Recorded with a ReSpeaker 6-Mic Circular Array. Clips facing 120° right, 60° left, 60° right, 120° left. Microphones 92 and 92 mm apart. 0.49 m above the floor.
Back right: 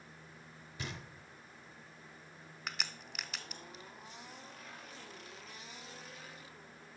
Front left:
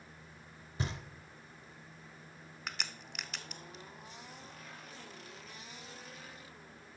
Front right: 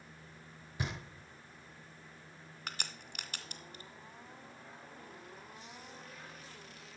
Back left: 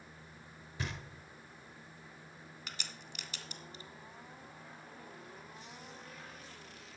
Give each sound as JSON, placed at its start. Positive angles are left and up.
{"t": 0.8, "sound": "knocking", "azimuth_deg": 15, "distance_m": 1.2}
{"t": 2.7, "sound": "a crack", "azimuth_deg": -30, "distance_m": 0.7}